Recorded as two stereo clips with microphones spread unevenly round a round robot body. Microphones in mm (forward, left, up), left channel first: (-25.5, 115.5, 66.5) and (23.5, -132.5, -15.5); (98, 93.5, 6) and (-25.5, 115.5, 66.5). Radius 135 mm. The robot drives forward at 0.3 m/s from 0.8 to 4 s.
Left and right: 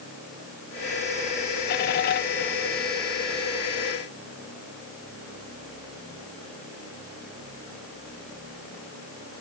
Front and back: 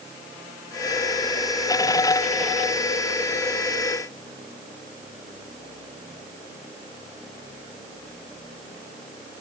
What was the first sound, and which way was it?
Only background noise.